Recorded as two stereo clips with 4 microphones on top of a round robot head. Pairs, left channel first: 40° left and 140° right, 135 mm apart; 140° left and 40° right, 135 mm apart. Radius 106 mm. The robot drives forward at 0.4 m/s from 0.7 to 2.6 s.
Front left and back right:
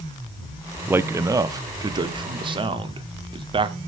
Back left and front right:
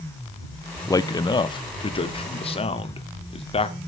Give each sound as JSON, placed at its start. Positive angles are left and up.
{"t": 0.9, "sound": "a man speaking", "azimuth_deg": 165, "distance_m": 0.6}